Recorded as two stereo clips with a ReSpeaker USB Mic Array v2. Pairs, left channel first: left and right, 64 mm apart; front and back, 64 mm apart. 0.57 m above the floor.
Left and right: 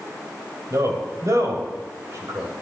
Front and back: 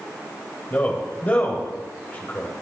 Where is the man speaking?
60° right, 3.5 m.